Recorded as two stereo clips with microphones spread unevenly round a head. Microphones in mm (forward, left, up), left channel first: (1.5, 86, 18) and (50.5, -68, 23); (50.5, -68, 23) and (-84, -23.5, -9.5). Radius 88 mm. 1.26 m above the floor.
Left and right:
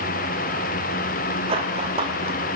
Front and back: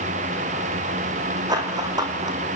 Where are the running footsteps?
130° right, 4 m.